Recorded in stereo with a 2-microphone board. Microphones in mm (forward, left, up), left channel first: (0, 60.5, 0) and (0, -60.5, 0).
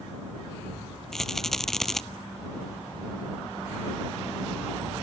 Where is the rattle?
5° left (ahead or behind).